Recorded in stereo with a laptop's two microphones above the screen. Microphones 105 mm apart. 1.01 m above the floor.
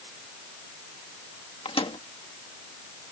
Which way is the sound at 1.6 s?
60° left (ahead or behind).